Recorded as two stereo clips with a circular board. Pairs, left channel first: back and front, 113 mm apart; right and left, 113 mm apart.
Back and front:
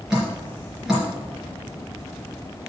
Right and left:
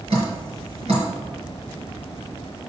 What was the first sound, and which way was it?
Dripping, 85° left.